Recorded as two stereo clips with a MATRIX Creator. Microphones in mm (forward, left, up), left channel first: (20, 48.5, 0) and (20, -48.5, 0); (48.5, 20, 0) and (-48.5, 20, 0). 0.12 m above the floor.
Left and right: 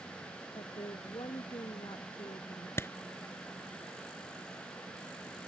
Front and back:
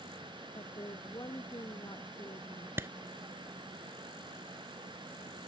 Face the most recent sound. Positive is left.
turn(degrees=135)